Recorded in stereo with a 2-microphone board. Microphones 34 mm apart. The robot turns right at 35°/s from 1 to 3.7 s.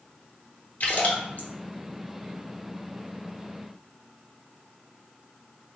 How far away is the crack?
No crack in this recording.